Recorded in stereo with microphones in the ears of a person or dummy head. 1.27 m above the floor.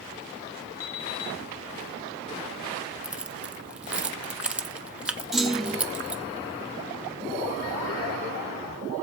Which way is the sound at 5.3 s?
Centre (ahead or behind).